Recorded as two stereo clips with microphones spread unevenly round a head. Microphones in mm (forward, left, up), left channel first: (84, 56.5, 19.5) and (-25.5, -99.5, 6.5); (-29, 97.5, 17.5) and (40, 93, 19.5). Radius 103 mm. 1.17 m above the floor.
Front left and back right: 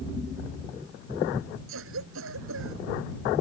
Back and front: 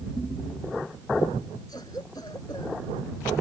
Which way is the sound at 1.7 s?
115° right.